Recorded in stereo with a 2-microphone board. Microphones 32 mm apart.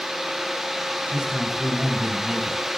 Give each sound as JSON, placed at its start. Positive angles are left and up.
{"t": 1.1, "sound": "a man speaking", "side_deg": -25, "distance_m": 1.6}